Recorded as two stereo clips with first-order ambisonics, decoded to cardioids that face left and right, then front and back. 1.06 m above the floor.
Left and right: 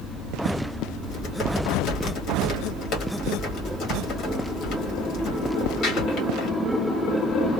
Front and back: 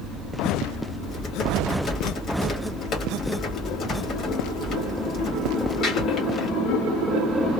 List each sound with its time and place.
1.0 s typing on a keyboard: 50° left, 1.2 m